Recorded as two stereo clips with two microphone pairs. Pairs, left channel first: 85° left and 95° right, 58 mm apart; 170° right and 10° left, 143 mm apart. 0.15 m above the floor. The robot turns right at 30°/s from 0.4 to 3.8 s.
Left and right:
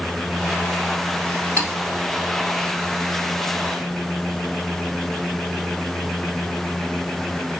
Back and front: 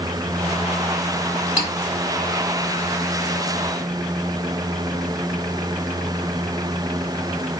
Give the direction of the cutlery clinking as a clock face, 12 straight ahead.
4 o'clock.